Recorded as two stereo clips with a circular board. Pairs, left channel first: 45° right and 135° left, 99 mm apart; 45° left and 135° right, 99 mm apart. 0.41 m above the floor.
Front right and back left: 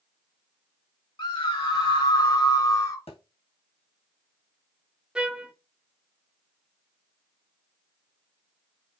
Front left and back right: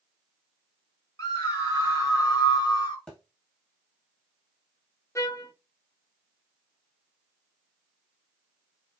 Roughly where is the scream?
Ahead.